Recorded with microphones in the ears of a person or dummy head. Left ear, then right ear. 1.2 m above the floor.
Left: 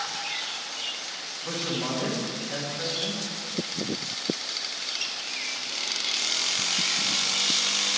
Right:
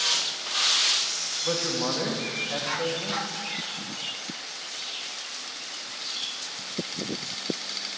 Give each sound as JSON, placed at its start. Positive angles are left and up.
{"t": 1.4, "sound": "a man speaking", "side_deg": -30, "distance_m": 1.5}